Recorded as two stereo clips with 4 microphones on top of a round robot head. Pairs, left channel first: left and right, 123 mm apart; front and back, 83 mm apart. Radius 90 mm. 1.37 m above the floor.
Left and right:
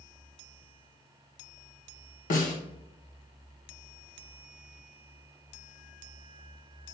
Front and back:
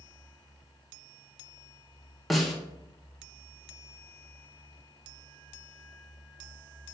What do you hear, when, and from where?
2.3 s a snare drum: 90° left, 1.1 m